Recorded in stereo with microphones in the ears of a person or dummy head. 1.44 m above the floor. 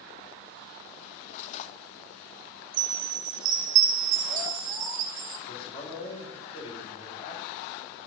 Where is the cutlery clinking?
40° left (ahead or behind), 0.9 m.